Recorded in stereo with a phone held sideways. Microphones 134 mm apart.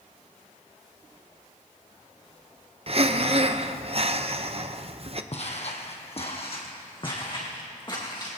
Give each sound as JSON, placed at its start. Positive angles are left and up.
{"t": 2.9, "sound": "breathing", "side_deg": -45, "distance_m": 0.6}
{"t": 5.3, "sound": "footsteps", "side_deg": 50, "distance_m": 1.9}